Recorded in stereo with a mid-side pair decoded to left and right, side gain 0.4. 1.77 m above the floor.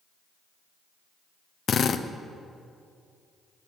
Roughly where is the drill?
Ahead left.